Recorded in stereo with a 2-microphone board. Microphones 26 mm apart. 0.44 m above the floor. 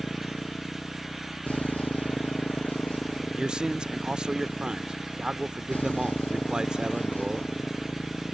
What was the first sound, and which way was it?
A motorcycle, 65° left (ahead or behind).